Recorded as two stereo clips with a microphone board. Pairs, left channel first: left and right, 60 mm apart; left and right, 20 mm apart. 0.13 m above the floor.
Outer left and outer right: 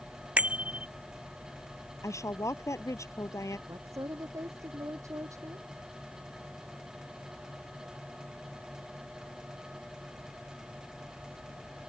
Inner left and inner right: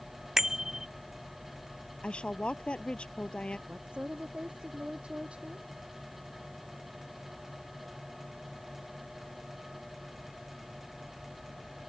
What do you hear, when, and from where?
0.4 s a bicycle bell: 25° right (ahead or behind)
2.0 s a woman speaking: 60° left (ahead or behind)
3.7 s a woman speaking: 60° right (ahead or behind)